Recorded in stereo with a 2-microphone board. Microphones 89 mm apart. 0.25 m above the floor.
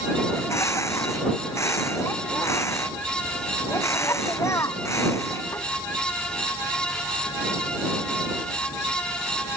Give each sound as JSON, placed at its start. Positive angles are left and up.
{"t": 0.3, "sound": "a bird", "side_deg": 35}